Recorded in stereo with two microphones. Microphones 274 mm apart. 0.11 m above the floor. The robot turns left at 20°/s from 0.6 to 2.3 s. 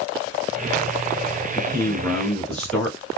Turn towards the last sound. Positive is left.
turn(degrees=5)  # may be behind; listen again after turning